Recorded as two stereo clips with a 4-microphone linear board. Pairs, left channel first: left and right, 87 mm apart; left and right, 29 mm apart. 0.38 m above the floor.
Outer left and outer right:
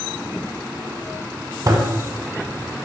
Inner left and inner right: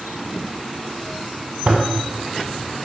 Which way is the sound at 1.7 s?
40° right (ahead or behind).